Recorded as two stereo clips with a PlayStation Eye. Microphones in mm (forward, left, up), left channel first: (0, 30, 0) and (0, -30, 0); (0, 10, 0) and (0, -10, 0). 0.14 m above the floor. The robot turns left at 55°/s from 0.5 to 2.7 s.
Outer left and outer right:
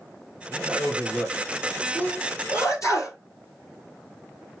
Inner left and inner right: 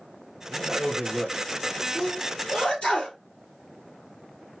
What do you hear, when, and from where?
0.5 s a man speaking: 120° right, 3 m; by 1.4 s 170° right, 3 m
1.9 s a sneeze: 30° left (ahead or behind), 3 m; by 3.2 s 60° left (ahead or behind), 3 m